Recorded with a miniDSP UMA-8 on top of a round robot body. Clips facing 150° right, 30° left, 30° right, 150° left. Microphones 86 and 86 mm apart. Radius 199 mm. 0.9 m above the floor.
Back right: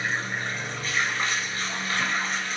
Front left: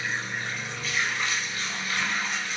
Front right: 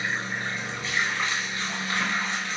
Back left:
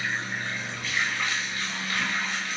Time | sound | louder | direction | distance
0.0 | running water | back right 2 dB, front right 1 dB | 95° right | 1.9 m